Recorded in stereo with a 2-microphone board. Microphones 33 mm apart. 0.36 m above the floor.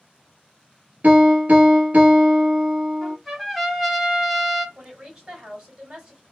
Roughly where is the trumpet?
Centre.